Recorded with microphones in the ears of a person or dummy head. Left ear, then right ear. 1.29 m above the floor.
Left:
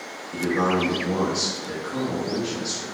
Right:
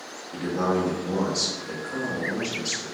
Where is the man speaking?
5° left (ahead or behind), 0.8 m.